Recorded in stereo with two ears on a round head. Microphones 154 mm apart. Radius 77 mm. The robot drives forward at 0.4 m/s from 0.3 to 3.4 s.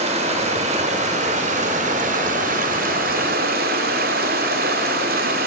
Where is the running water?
40° right (ahead or behind), 3.5 m; by 5.5 s 55° right (ahead or behind), 2.5 m.